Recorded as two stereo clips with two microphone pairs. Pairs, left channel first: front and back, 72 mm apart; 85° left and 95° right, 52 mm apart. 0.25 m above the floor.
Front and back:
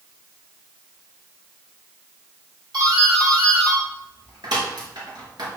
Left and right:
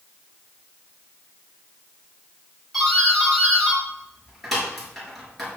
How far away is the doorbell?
About 5 m.